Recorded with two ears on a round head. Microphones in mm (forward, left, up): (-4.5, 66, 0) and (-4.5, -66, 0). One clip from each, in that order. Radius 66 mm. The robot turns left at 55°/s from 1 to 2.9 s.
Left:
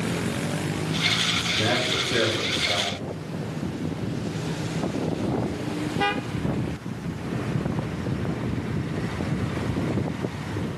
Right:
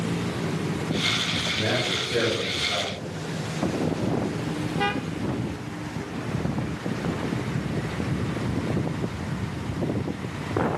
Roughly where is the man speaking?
Behind left.